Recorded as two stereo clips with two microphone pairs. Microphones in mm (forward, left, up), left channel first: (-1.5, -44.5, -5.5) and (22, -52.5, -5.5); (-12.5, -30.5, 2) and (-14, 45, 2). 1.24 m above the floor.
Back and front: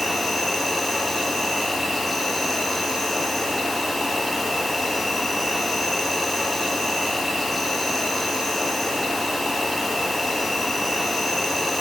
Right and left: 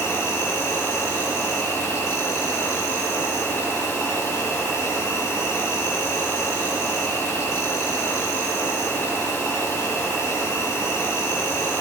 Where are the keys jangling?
No keys jangling in this recording.